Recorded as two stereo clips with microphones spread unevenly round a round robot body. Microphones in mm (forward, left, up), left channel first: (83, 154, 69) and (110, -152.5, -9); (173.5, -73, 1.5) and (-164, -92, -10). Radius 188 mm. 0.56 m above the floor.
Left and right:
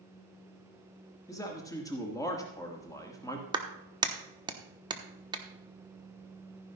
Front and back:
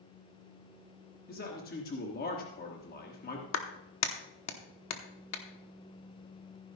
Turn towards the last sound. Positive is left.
turn(degrees=-25)